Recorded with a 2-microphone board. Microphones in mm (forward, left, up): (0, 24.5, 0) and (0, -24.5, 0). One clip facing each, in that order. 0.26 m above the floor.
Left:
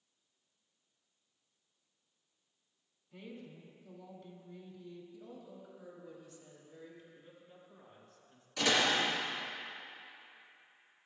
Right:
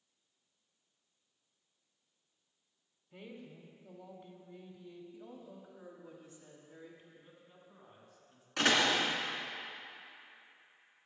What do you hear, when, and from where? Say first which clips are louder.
3.1 s a woman speaking: left 1 dB; 20° right (ahead or behind), 1.0 m
5.1 s a woman speaking: even; 35° right (ahead or behind), 1.8 m
7.2 s a man speaking: left 2 dB; 10° right (ahead or behind), 2.5 m
8.6 s a door slam: right 1 dB; 55° right (ahead or behind), 2 m